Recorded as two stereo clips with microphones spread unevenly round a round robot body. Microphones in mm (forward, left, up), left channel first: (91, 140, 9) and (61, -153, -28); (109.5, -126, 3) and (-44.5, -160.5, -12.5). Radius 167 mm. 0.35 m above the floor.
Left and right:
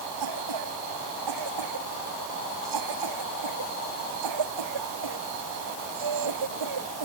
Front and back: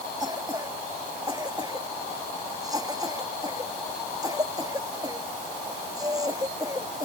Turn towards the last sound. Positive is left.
turn(degrees=-100)